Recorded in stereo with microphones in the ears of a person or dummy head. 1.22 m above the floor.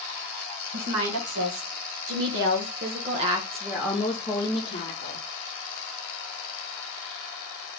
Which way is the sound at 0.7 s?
65° right (ahead or behind).